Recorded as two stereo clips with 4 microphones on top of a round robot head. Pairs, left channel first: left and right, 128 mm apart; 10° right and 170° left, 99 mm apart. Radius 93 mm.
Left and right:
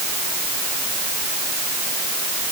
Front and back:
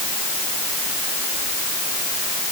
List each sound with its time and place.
Only background noise.